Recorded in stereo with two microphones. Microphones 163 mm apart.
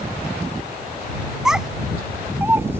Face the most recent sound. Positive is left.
turn(degrees=-15)  # may be behind; listen again after turning